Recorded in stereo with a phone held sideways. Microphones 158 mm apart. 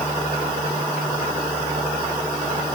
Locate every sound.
Only background noise.